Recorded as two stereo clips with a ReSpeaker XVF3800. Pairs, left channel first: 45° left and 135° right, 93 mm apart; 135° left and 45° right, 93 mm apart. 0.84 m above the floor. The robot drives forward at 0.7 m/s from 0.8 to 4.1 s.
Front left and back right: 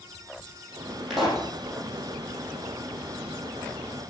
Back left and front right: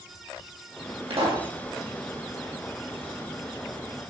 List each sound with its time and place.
1.1 s a pop: 45° right, 7.5 m